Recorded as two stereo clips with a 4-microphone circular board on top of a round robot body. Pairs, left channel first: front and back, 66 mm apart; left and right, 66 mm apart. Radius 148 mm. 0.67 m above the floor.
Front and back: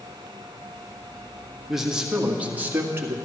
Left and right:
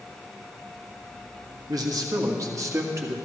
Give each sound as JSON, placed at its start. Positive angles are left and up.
{"t": 1.7, "sound": "a man speaking", "azimuth_deg": -95, "distance_m": 1.7}